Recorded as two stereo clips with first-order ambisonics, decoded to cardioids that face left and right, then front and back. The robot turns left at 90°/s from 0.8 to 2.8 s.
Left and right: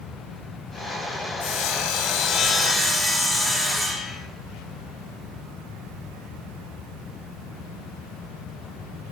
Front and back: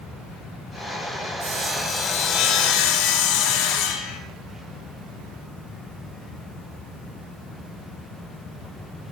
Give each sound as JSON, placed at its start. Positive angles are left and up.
{"t": 1.4, "sound": "sawing", "azimuth_deg": 130, "distance_m": 4.0}